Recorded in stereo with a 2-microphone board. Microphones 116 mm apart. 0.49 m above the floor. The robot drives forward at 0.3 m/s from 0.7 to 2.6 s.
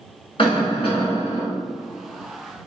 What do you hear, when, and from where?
0.4 s a cough: 50° left (ahead or behind), 2.0 m